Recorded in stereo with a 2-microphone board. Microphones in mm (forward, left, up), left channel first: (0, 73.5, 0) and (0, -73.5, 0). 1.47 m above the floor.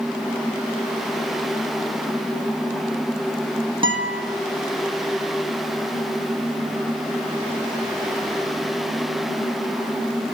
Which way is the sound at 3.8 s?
35° right (ahead or behind).